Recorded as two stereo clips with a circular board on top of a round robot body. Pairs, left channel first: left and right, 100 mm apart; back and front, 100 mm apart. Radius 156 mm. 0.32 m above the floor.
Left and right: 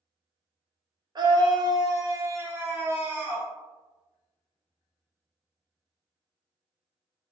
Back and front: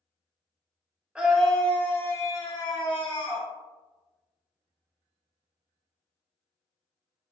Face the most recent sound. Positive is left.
turn(degrees=-165)